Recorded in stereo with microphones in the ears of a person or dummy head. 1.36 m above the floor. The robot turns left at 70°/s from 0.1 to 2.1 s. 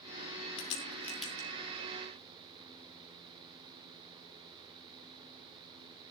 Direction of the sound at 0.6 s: 40° left (ahead or behind).